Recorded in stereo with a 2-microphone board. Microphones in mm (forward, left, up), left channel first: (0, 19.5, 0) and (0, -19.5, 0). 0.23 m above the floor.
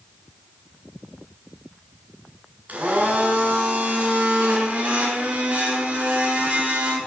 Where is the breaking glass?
I don't hear breaking glass.